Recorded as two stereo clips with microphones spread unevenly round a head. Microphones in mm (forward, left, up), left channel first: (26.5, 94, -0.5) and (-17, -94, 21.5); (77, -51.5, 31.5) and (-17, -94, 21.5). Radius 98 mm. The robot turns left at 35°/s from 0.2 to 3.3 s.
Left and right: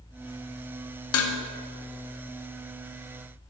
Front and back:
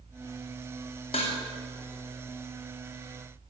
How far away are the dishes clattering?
About 1.1 m.